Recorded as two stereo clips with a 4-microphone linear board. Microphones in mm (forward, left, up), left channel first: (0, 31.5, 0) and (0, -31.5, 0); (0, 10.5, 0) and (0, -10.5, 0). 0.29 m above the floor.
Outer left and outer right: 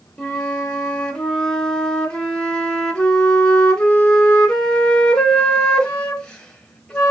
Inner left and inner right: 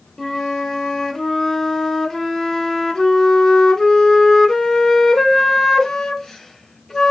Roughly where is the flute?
Centre.